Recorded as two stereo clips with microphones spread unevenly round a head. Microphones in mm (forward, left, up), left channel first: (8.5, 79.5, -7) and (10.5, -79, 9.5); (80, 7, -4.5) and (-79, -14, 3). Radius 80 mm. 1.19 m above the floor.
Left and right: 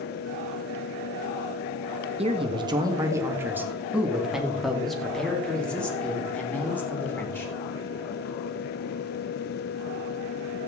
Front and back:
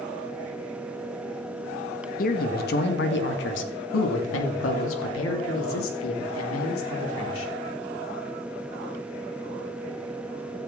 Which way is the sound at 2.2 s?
35° right.